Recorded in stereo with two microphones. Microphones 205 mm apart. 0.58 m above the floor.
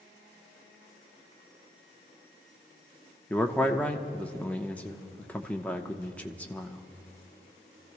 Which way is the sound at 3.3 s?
5° left (ahead or behind).